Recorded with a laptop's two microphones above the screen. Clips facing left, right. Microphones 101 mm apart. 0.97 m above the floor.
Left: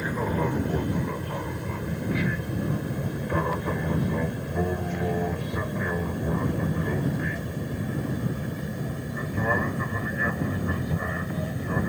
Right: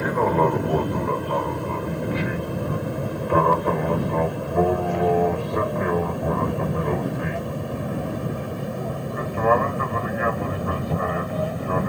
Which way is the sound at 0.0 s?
70° right (ahead or behind).